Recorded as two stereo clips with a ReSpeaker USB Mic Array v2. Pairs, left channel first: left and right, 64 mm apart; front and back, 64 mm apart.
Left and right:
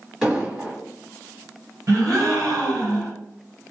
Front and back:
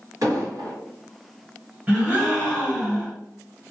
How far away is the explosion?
About 1.4 m.